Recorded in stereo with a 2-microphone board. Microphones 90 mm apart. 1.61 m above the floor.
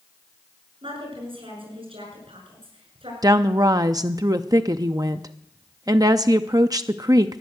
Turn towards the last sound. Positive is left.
turn(degrees=-45)  # may be behind; listen again after turning